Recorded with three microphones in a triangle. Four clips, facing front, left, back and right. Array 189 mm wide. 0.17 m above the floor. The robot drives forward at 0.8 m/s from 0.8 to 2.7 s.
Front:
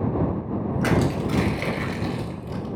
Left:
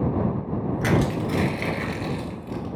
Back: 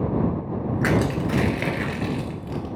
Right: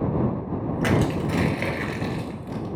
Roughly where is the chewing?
I don't hear chewing.